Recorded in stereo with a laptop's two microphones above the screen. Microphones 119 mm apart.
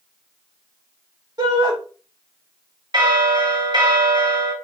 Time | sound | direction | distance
1.4 | a shout | 40° right (ahead or behind) | 1.4 m
2.9 | a bell | 40° right (ahead or behind) | 0.8 m